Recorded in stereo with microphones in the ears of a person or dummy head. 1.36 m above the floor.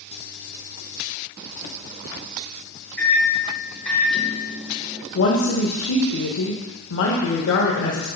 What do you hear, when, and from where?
3.0 s a microwave: 10° left (ahead or behind), 0.9 m
5.2 s a woman speaking: 75° left (ahead or behind), 1.1 m